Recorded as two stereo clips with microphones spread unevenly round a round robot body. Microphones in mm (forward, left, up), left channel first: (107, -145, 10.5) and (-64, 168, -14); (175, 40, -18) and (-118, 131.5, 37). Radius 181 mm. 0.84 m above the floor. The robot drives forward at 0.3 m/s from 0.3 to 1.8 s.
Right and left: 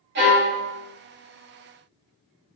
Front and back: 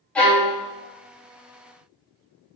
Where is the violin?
65° left, 1.5 m.